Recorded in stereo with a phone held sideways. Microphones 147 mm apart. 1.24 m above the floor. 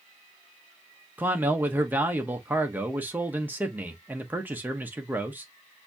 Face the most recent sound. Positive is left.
turn(degrees=-15)  # may be behind; listen again after turning